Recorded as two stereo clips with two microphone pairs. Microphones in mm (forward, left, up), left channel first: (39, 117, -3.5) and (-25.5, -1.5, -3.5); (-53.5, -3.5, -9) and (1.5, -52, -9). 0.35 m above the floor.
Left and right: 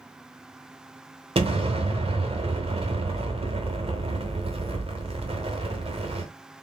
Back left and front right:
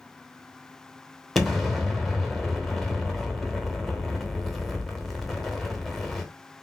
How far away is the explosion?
About 0.9 m.